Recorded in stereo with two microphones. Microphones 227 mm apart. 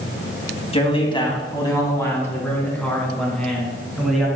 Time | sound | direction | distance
0.7 | a man speaking | 25° left (ahead or behind) | 2.5 m